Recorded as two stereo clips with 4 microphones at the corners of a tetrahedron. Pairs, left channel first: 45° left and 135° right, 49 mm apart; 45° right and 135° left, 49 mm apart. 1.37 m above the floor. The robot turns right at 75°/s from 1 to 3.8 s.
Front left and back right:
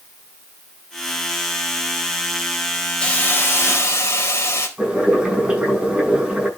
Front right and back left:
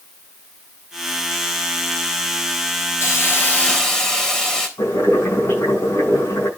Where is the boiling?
60° right, 7.5 m.